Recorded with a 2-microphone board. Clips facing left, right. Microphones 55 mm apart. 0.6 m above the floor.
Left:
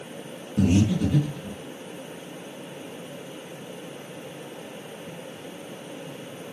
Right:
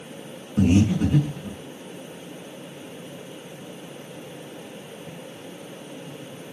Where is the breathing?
35° right (ahead or behind), 4 m.